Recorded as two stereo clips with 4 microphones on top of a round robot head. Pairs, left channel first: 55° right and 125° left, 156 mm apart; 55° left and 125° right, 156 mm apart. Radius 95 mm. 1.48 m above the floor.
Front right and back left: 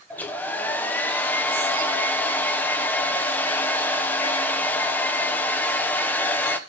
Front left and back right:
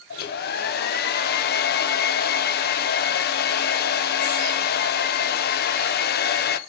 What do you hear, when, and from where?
0.1 s a hair dryer: 25° left, 0.7 m